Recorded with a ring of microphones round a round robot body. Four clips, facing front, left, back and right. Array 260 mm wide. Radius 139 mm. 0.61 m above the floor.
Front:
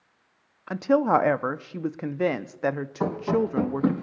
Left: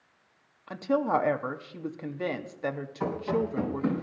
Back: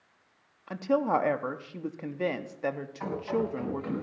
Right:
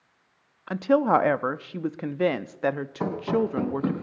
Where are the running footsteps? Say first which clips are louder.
Right 3 dB, front 6 dB; 35° right, 4 m; by 4.0 s 20° right, 4 m.